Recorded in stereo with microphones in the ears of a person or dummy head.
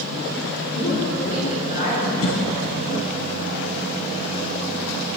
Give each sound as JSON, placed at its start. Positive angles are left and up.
{"t": 0.7, "sound": "a woman speaking", "side_deg": 45, "distance_m": 3.5}
{"t": 2.2, "sound": "a cough", "side_deg": 70, "distance_m": 1.6}